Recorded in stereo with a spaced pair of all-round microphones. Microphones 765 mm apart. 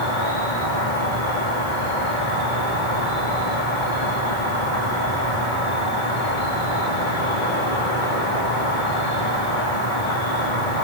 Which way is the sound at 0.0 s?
80° left.